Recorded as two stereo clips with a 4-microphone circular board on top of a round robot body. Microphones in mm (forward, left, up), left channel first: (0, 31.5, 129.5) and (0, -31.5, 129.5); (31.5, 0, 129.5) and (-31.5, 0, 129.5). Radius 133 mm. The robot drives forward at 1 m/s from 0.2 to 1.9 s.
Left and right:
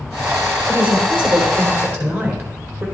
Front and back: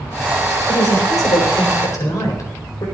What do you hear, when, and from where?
0.7 s a woman speaking: 25° right, 4.5 m; by 2.9 s 35° right, 3.5 m